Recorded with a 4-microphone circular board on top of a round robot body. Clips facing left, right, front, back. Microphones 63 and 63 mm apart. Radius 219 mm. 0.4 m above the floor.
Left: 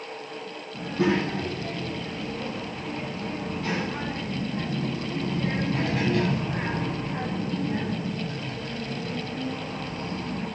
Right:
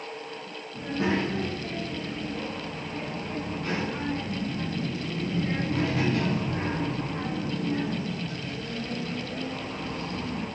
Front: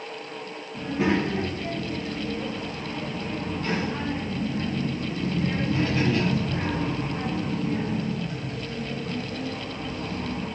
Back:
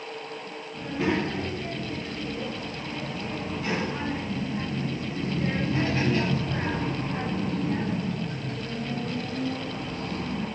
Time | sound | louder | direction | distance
0.7 | a child speaking | left 3 dB, front 3 dB | 85° left | 5.5 m